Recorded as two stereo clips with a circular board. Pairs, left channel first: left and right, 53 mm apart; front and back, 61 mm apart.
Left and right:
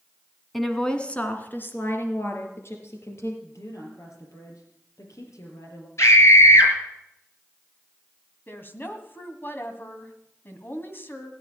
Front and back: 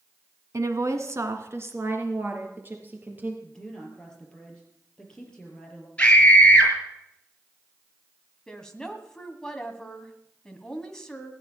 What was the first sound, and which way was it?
A woman speaking, 175° left.